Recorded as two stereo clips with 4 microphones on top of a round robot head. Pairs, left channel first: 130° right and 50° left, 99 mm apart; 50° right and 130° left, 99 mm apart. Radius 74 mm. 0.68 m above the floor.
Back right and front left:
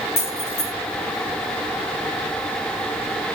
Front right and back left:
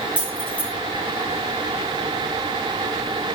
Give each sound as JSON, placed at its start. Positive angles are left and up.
{"t": 0.2, "sound": "keys jangling", "azimuth_deg": -125, "distance_m": 8.5}